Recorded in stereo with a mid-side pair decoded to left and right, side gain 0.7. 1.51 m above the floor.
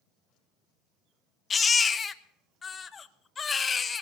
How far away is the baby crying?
About 0.9 m.